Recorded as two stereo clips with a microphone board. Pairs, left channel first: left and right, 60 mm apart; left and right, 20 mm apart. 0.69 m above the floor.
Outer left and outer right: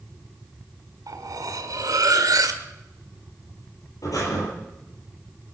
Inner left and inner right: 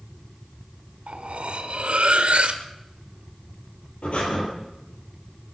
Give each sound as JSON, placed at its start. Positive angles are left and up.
{"t": 1.1, "sound": "cutlery clinking", "side_deg": -75, "distance_m": 1.4}
{"t": 4.0, "sound": "breathing", "side_deg": 70, "distance_m": 7.0}